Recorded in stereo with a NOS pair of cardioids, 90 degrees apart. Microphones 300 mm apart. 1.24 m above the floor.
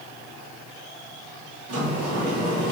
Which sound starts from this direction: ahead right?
A sliding door, at 1.7 s.